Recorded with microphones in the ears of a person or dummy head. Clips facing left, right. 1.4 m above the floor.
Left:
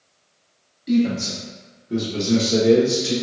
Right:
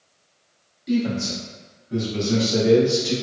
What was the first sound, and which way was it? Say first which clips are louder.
A man speaking: left 3 dB; 10° left (ahead or behind).